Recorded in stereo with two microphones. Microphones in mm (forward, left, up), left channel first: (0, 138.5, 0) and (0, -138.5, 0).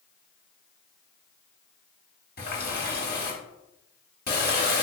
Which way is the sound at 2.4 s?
35° left (ahead or behind).